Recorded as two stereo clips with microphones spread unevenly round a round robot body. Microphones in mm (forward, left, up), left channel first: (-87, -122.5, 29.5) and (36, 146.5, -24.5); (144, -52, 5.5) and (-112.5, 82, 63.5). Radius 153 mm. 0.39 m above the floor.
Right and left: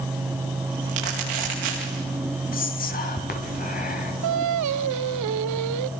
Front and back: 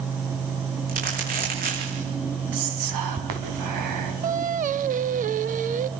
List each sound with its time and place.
0.9 s crumpling: 90° left, 9 m
2.5 s whispering: straight behind, 5 m
4.2 s singing: 85° left, 0.9 m